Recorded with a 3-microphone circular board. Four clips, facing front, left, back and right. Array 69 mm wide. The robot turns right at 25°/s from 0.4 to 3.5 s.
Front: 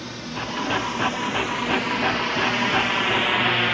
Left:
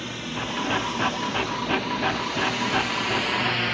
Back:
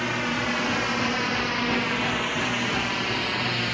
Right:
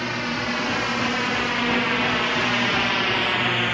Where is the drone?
135° right; by 3.7 s 20° right.